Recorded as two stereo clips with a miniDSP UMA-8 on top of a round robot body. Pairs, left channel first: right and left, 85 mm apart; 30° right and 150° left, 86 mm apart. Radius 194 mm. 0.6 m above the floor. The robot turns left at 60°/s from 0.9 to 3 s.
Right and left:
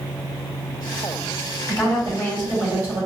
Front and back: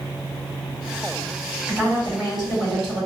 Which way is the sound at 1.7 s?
135° right.